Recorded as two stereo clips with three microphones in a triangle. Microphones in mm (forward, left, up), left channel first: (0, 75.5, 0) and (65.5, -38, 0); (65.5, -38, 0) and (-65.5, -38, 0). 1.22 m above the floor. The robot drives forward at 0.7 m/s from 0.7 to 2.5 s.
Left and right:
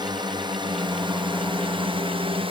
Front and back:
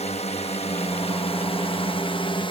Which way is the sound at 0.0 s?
10° right.